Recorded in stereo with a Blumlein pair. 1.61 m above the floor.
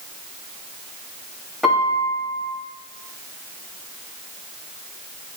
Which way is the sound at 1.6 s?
5° left.